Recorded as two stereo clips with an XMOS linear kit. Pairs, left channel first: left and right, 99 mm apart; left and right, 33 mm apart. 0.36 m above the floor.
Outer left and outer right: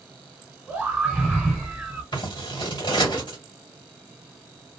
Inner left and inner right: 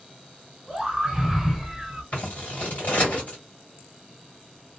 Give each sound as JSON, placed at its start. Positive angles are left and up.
{"t": 0.7, "sound": "a scream", "side_deg": -5, "distance_m": 1.3}
{"t": 2.1, "sound": "scissors", "side_deg": 45, "distance_m": 1.7}